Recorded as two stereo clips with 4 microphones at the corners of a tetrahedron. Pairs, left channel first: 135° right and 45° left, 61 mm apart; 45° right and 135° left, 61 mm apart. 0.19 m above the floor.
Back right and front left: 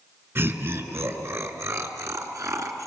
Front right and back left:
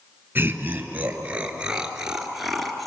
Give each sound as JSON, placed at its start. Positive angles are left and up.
{"t": 0.3, "sound": "laughter", "azimuth_deg": 85, "distance_m": 2.5}